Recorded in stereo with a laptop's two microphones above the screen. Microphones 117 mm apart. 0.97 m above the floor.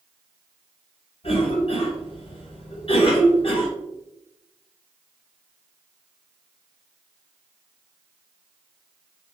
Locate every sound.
1.2 s a cough: 55° left (ahead or behind), 0.8 m